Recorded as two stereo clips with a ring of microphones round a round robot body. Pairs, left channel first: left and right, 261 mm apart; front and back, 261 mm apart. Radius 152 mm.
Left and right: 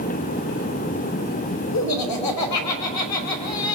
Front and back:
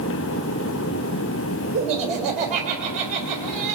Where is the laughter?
110° left, 3.5 m.